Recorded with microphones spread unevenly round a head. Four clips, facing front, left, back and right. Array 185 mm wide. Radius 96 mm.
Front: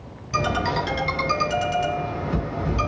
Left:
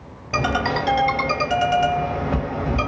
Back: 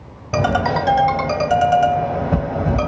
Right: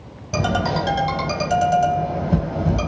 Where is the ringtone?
Straight behind, 2.5 m.